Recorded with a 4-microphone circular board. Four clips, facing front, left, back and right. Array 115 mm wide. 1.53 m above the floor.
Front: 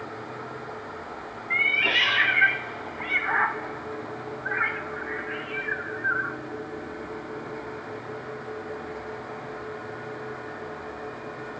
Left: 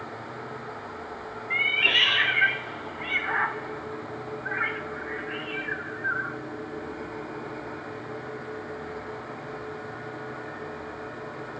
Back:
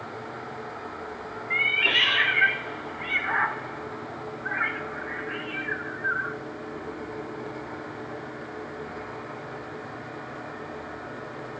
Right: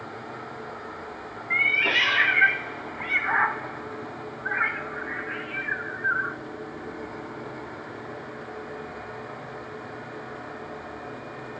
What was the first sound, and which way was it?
A cat meowing, 80° right.